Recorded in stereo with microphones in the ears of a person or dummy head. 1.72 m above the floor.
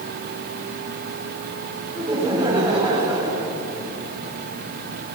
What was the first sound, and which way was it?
Laughter, 10° right (ahead or behind).